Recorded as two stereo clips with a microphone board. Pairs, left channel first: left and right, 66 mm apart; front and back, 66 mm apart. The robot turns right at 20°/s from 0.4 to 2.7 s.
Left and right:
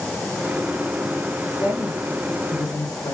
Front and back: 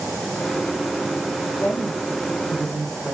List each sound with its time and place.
1.6 s a woman speaking: 65° left, 5.5 m; by 3.1 s 85° left, 5.5 m